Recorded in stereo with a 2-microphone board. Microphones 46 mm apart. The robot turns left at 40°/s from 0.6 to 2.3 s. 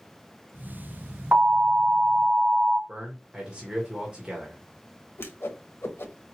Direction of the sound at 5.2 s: 65° left (ahead or behind).